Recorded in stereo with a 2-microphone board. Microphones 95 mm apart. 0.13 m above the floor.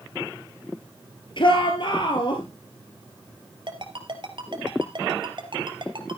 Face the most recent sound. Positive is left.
turn(degrees=-55)  # may be behind; listen again after turning